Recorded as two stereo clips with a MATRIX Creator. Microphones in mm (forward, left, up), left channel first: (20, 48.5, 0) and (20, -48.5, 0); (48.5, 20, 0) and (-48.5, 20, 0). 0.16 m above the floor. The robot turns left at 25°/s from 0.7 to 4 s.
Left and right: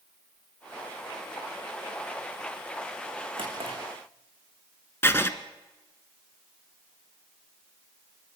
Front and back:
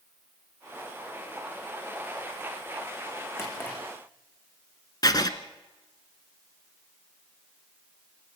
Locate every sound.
3.4 s a drawer: 60° right, 5.5 m; by 3.8 s 70° right, 5.5 m
5.0 s writing: 30° left, 1.2 m